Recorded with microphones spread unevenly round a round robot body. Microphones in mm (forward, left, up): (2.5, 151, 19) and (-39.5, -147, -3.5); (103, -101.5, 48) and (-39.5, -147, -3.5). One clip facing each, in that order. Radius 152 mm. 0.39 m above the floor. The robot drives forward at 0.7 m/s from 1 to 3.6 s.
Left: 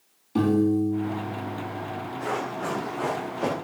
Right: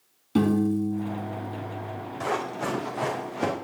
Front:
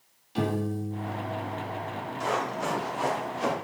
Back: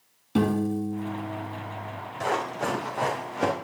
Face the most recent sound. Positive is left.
turn(degrees=-145)